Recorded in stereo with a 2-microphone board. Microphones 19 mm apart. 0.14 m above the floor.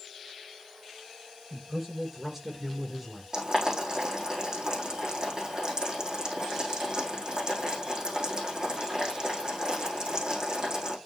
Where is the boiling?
35° right (ahead or behind), 5 m.